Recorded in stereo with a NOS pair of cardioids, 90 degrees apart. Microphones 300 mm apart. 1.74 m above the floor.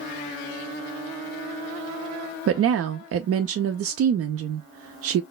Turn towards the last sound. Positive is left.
turn(degrees=-50)